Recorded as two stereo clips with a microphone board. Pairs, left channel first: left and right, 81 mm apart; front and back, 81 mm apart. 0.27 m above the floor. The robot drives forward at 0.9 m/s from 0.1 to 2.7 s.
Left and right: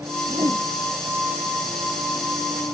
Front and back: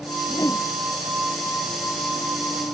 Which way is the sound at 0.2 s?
50° right.